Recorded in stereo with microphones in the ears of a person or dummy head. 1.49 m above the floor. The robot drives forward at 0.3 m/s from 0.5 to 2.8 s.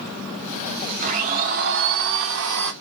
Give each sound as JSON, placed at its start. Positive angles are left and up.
{"t": 1.0, "sound": "a blender", "side_deg": -40, "distance_m": 0.6}